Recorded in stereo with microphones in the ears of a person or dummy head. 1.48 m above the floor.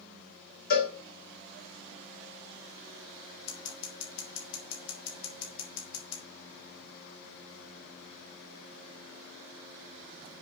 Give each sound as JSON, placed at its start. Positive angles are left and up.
{"t": 0.7, "sound": "a cowbell", "side_deg": 60, "distance_m": 2.5}
{"t": 3.5, "sound": "scissors", "side_deg": 70, "distance_m": 3.0}